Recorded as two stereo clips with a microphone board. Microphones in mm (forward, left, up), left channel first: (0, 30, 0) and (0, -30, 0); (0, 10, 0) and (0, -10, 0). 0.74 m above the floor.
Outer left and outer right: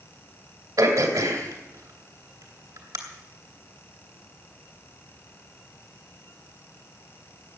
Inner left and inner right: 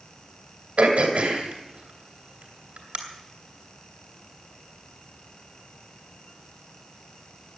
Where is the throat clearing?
85° right, 2.5 m.